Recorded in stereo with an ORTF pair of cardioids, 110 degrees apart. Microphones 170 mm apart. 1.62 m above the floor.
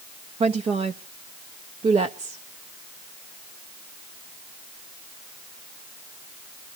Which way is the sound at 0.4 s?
35° right.